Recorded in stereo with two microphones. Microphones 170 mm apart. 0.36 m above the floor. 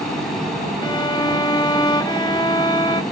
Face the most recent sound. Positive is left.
turn(degrees=25)  # may be behind; listen again after turning